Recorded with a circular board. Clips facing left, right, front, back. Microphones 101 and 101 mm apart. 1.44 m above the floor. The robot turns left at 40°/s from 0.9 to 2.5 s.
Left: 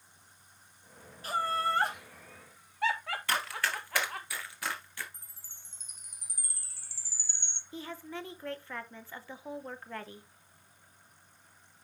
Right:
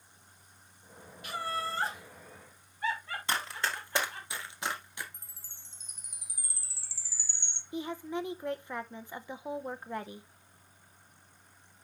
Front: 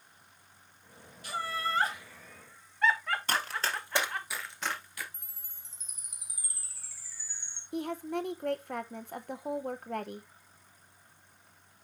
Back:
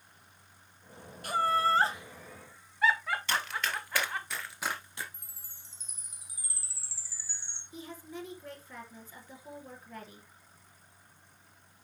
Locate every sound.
1.2 s laughter: 145° left, 1.7 m; by 4.3 s 95° left, 1.7 m
3.3 s running footsteps: 25° right, 2 m; by 5.0 s 145° right, 1.6 m
5.1 s a chime: 125° left, 0.9 m
7.7 s a woman speaking: 20° right, 0.8 m